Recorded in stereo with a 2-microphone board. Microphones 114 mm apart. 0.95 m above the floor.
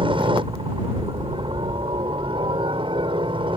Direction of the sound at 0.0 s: 45° right (ahead or behind).